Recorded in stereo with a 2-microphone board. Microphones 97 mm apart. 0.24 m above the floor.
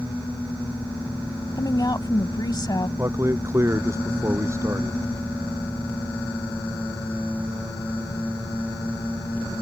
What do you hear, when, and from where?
1.6 s a woman speaking: 45° left (ahead or behind)
3.0 s a man speaking: 30° right (ahead or behind)